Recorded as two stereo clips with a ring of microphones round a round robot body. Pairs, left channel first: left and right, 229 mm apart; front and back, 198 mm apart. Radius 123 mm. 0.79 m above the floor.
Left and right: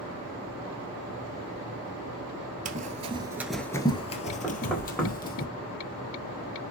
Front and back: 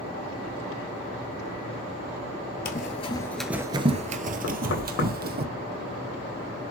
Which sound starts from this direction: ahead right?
Running footsteps, at 2.6 s.